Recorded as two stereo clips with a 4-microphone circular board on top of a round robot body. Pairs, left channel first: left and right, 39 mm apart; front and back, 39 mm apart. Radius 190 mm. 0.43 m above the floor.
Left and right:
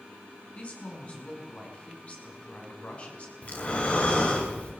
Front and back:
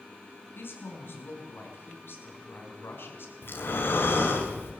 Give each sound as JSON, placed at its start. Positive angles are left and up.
{"t": 0.6, "sound": "a woman speaking", "azimuth_deg": 30, "distance_m": 6.0}
{"t": 3.4, "sound": "breathing", "azimuth_deg": 30, "distance_m": 4.5}